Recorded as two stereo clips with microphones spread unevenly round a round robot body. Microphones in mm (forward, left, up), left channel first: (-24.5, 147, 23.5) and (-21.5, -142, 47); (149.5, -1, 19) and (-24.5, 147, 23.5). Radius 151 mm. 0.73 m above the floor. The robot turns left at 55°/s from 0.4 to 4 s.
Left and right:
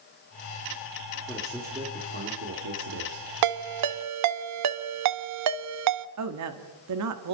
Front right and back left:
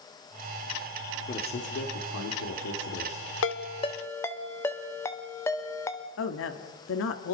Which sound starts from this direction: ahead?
A man speaking, at 1.3 s.